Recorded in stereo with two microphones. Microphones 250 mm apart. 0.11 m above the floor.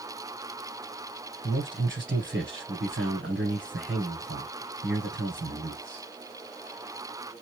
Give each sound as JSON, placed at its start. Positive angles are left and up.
{"t": 1.4, "sound": "a man speaking", "side_deg": -45, "distance_m": 2.0}